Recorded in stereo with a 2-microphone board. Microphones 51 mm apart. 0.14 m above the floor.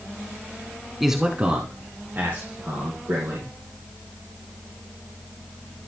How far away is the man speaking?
About 1.1 m.